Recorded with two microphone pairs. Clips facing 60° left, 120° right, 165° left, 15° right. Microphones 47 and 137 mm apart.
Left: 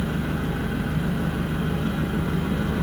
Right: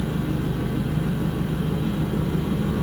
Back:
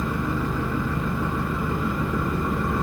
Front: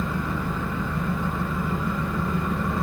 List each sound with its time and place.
0.0 s an engine running: 80° left, 1.4 m